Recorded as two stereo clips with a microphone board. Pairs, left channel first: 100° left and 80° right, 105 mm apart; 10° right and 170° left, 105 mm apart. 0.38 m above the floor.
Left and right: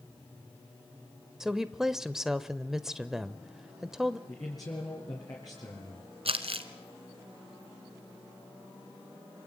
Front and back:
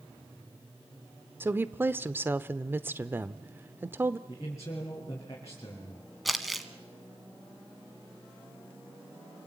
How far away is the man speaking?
About 5.5 m.